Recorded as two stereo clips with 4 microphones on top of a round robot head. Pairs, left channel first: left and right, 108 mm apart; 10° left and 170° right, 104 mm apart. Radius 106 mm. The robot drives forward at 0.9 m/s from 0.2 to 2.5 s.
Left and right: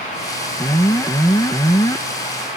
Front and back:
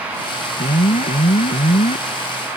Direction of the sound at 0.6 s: 25° left.